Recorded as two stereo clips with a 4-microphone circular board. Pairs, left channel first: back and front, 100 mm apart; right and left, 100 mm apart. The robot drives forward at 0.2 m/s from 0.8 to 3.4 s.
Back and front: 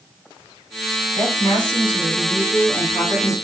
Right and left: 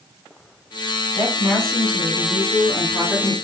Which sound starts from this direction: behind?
A woman speaking, at 1.1 s.